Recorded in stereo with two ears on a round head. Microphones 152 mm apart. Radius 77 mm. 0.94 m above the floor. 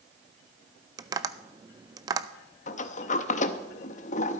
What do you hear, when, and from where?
1.0 s tapping: 20° right (ahead or behind), 0.5 m
2.7 s a sliding door: 45° left (ahead or behind), 0.8 m